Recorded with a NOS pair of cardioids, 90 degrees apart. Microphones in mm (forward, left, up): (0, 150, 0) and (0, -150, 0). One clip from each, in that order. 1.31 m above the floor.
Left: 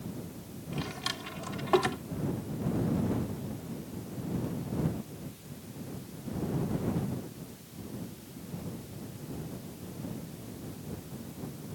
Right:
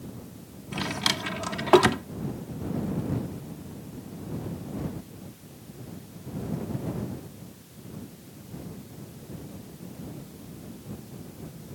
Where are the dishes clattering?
I don't hear dishes clattering.